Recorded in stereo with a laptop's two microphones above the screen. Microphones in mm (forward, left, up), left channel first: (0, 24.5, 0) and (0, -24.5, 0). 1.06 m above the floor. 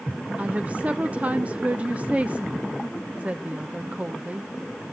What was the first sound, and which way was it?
A woman speaking, 30° right (ahead or behind).